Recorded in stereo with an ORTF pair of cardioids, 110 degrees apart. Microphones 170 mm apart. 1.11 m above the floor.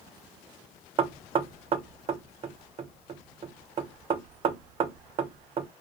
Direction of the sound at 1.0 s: 35° right.